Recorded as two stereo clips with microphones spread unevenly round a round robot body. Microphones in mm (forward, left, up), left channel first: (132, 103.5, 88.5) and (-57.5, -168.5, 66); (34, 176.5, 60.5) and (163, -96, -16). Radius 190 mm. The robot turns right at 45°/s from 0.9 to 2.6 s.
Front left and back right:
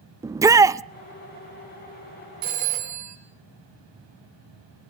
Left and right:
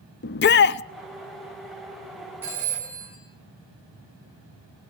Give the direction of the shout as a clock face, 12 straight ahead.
6 o'clock.